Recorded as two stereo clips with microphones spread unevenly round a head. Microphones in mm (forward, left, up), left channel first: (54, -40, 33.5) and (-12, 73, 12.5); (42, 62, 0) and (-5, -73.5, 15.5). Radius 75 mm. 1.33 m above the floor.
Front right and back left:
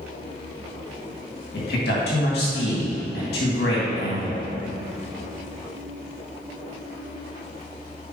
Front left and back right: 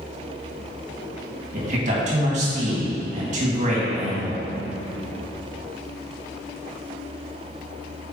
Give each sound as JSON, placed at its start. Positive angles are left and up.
{"t": 1.5, "sound": "a man speaking", "azimuth_deg": -70, "distance_m": 2.5}